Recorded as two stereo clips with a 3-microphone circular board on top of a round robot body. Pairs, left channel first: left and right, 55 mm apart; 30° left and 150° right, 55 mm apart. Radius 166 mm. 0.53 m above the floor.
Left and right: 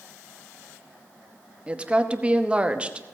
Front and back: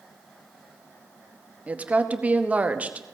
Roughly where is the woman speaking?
Behind right.